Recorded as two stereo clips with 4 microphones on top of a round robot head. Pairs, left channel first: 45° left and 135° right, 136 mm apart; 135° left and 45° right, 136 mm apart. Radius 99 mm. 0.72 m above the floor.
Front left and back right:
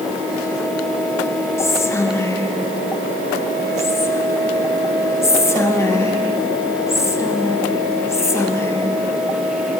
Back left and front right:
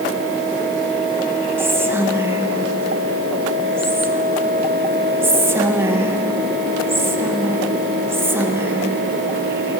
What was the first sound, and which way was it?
Whispering, 5° left.